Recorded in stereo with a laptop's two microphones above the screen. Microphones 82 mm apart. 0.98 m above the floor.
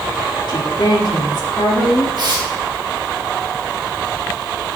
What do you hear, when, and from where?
0.5 s a woman speaking: 60° left (ahead or behind), 2 m
2.2 s tearing paper: 60° right (ahead or behind), 1.4 m